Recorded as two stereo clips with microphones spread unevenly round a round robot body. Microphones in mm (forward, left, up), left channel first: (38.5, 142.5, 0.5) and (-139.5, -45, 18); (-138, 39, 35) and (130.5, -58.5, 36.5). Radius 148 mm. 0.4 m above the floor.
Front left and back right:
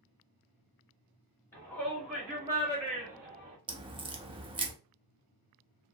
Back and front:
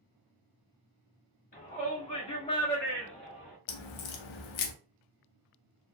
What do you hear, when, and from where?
1.5 s a shout: 115° left, 1.2 m; by 3.6 s 105° right, 1.1 m
3.7 s a crack: 155° left, 0.5 m